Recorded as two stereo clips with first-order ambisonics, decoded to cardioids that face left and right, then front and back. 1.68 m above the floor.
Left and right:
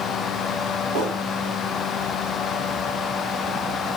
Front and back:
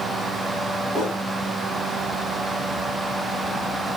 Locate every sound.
0.9 s a whoosh: 95° right, 2.5 m